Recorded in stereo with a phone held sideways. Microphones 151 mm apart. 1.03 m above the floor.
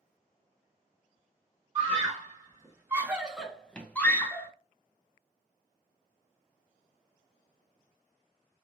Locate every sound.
1.8 s a scream: 25° right (ahead or behind), 1.2 m; by 4.5 s 15° left (ahead or behind), 1.2 m